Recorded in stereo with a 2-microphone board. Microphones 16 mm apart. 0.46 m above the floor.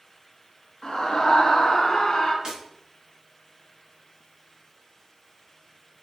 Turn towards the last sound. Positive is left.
turn(degrees=-40)  # may be behind; listen again after turning